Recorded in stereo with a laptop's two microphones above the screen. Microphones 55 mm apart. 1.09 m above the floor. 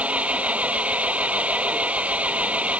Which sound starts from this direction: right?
An engine running, at 0.0 s.